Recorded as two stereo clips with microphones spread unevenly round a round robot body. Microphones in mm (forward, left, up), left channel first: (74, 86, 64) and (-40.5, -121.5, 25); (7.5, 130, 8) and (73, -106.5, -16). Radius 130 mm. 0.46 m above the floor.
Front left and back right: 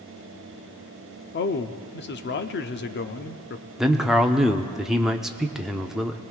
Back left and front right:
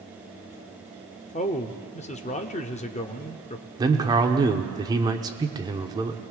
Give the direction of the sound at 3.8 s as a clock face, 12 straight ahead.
2 o'clock.